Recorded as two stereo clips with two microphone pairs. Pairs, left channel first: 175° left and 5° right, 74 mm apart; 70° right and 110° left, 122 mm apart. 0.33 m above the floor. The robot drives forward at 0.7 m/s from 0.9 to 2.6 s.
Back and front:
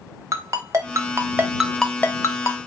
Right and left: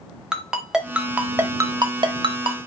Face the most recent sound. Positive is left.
turn(degrees=150)